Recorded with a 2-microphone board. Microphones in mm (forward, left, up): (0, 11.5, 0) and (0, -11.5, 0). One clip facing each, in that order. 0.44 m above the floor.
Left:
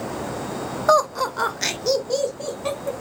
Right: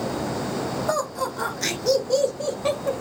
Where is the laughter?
45° left (ahead or behind), 1.3 m; by 3.0 s 15° right (ahead or behind), 1.6 m.